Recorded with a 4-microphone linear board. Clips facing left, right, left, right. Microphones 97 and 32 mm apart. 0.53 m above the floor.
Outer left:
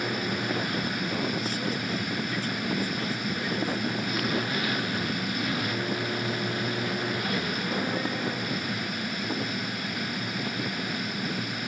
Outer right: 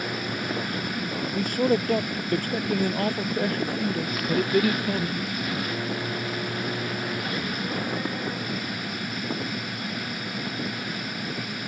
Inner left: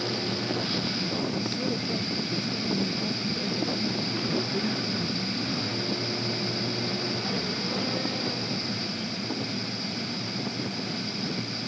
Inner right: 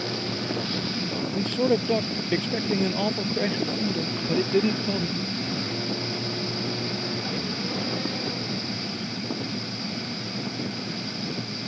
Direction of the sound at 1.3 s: 55° right (ahead or behind).